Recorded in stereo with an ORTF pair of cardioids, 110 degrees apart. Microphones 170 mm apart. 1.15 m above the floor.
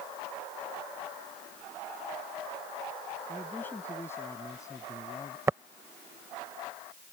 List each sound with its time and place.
3.3 s a man speaking: 10° left; by 5.4 s 25° left
5.5 s tapping: 15° right